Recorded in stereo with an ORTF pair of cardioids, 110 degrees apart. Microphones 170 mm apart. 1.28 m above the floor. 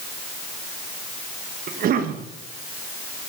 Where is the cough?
60° right, 1.6 m.